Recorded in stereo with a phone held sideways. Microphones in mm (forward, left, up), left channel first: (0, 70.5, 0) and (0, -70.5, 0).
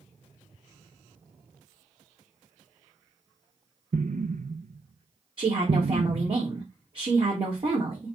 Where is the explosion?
65° right (ahead or behind), 0.6 m.